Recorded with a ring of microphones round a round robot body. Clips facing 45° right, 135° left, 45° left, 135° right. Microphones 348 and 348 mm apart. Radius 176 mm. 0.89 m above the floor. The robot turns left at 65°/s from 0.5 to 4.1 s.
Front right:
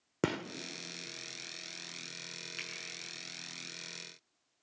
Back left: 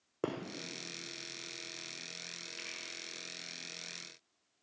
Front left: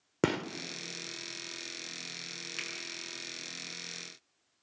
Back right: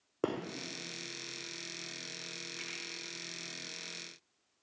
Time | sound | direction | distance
0.2 | a gunshot | straight ahead | 1.1 m
2.6 | a finger snap | 5° left | 7.5 m